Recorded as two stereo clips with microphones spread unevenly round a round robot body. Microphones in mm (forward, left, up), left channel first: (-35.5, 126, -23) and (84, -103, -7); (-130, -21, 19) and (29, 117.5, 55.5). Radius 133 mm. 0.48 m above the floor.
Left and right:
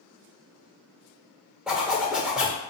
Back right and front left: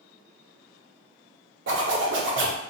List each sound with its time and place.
1.7 s a zipper: 25° left, 0.9 m